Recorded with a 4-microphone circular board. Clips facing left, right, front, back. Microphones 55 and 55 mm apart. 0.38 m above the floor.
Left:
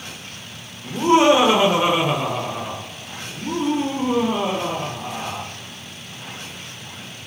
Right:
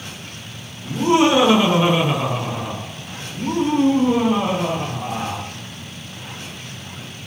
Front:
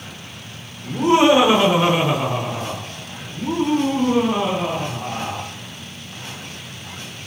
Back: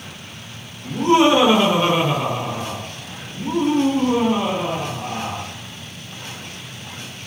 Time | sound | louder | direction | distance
0.8 | laughter | left 1 dB, even | 70° left | 1.2 m